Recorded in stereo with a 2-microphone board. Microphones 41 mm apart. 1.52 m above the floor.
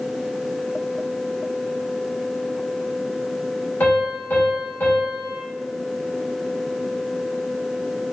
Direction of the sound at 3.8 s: 50° left (ahead or behind).